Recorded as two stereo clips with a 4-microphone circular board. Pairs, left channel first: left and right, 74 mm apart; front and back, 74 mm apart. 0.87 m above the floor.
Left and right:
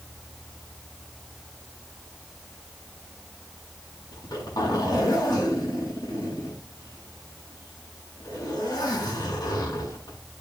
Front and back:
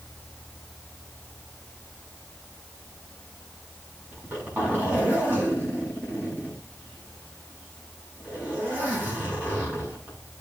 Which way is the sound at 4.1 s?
115° left.